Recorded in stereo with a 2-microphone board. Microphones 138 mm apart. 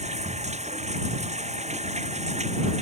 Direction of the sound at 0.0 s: 55° right (ahead or behind).